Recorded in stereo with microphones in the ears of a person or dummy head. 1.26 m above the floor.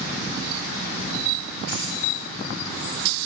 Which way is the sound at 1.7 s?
50° left (ahead or behind).